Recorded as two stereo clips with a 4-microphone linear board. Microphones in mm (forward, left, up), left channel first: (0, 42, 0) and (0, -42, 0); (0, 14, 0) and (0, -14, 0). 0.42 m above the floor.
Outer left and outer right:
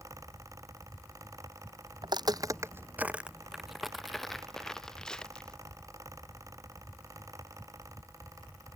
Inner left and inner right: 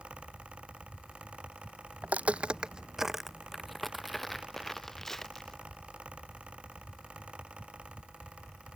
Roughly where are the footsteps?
Right.